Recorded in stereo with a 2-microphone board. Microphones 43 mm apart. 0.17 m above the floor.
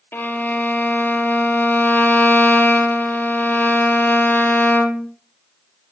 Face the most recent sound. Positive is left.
turn(degrees=40)  # may be behind; listen again after turning